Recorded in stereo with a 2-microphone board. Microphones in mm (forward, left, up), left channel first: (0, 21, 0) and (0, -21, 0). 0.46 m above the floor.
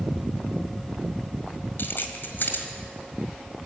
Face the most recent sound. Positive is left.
turn(degrees=60)  # may be behind; listen again after turning